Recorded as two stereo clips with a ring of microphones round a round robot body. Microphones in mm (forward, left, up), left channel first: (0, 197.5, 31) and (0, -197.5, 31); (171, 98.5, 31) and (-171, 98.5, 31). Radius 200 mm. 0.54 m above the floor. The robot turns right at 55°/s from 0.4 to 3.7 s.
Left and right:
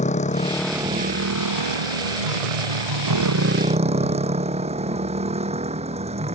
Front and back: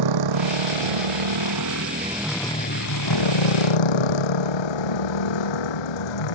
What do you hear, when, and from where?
0.0 s a motorcycle: 165° left; by 6.4 s 15° right